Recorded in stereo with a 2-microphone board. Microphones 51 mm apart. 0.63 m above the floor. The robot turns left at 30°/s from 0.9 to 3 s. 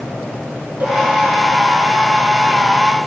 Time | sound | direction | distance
0.8 | a cowbell | 25° right (ahead or behind) | 4.5 m